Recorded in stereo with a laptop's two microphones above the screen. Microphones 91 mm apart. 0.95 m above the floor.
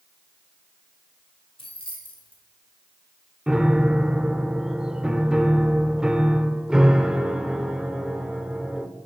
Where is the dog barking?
I don't hear a dog barking.